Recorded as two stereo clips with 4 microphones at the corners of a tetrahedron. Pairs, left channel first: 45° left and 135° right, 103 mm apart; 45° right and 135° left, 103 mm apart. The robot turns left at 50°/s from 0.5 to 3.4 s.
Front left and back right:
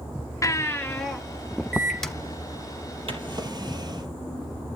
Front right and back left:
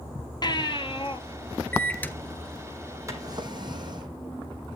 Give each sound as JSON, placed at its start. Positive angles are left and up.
{"t": 0.4, "sound": "a baby crying", "azimuth_deg": -10, "distance_m": 1.2}
{"t": 1.7, "sound": "a microwave", "azimuth_deg": -15, "distance_m": 1.2}
{"t": 3.1, "sound": "a drawer", "azimuth_deg": -165, "distance_m": 2.0}